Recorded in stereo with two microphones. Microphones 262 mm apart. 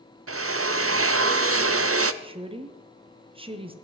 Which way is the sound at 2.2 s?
20° right (ahead or behind).